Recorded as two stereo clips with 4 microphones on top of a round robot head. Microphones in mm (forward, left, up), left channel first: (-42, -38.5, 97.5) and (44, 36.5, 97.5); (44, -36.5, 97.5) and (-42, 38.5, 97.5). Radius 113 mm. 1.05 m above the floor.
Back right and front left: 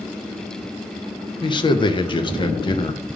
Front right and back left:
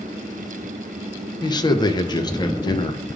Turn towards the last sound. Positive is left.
turn(degrees=-95)